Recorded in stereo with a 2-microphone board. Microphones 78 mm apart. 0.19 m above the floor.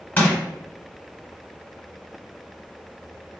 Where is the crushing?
20° left (ahead or behind), 1.5 m.